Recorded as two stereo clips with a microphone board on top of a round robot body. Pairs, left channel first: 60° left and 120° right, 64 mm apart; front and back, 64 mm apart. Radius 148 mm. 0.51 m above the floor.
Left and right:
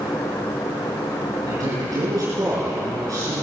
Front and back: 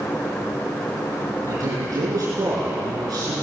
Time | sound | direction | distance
1.5 | a man speaking | 145° right | 7.5 m